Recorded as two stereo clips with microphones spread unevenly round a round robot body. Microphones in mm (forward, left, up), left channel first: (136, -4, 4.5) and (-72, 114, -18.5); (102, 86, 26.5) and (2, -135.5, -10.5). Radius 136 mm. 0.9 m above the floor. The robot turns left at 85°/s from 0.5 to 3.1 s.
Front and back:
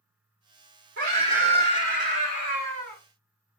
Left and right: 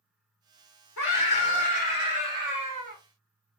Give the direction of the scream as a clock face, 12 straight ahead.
8 o'clock.